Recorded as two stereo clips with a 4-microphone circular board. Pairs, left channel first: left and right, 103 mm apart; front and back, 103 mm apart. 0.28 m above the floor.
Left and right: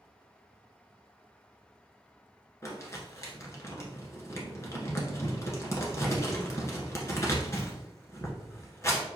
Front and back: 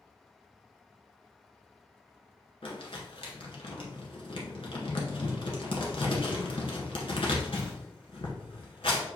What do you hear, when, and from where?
2.6 s crumpling: 30° left, 1.2 m